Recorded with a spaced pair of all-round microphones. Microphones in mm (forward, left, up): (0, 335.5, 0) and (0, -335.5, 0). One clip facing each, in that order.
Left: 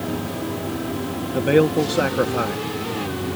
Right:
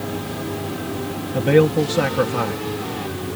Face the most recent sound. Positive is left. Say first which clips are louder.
# right 1 dB
turn(degrees=-30)  # may be behind; listen again after turning